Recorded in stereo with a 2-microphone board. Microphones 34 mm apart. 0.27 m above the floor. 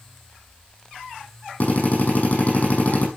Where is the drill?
50° left (ahead or behind), 5.5 m.